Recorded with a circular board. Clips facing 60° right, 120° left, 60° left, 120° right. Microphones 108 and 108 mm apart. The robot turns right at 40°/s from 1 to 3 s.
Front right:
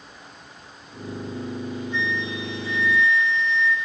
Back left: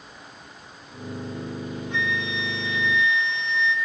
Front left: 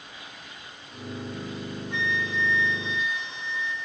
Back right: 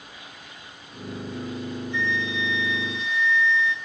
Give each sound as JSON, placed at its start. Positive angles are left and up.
{"t": 1.9, "sound": "a flute", "azimuth_deg": 95, "distance_m": 5.0}